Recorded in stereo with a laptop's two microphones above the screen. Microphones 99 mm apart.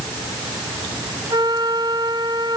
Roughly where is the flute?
Right.